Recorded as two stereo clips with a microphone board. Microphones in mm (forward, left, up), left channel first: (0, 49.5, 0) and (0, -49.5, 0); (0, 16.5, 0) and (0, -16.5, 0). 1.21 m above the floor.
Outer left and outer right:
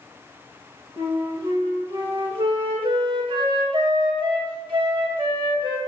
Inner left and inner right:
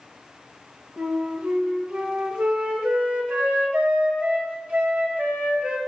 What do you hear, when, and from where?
1.0 s a flute: 55° right (ahead or behind), 1.8 m